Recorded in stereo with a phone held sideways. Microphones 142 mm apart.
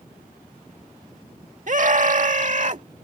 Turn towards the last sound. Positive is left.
turn(degrees=-55)  # may be behind; listen again after turning